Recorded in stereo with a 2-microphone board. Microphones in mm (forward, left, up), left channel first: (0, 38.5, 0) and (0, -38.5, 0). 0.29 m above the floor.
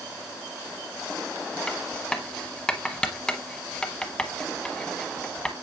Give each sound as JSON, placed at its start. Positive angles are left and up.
{"t": 1.7, "sound": "writing", "side_deg": 10, "distance_m": 0.8}